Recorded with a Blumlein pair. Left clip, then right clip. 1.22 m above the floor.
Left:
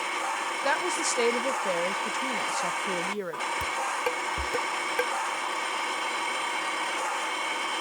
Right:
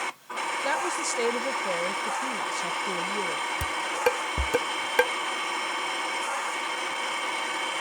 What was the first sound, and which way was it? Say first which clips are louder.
A woman speaking: left 2 dB; 5° left.